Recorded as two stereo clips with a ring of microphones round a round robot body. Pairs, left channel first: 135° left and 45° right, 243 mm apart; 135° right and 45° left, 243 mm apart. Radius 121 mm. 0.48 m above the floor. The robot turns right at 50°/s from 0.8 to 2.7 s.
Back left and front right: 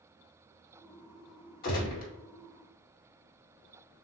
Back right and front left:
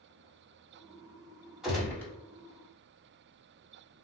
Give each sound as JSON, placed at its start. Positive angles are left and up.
{"t": 1.6, "sound": "a gunshot", "azimuth_deg": 130, "distance_m": 1.6}